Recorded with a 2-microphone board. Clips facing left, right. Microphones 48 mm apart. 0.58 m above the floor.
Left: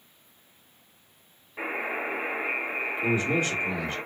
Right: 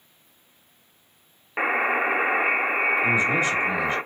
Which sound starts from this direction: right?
A buzzer, at 1.6 s.